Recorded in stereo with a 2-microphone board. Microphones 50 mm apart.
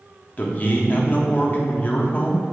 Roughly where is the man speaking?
Left.